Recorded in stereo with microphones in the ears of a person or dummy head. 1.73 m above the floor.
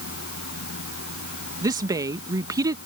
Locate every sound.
0.0 s a fan: 70° left (ahead or behind)
1.6 s a woman speaking: 20° right (ahead or behind)